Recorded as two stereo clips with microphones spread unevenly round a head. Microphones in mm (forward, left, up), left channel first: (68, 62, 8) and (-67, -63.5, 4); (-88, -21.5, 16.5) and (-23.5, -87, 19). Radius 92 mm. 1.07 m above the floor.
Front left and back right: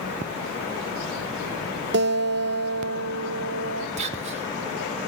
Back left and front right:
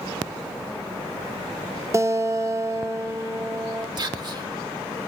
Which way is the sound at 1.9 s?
105° right.